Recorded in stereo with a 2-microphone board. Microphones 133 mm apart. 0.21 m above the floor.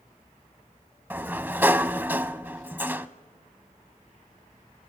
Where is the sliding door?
15° right (ahead or behind), 0.5 m.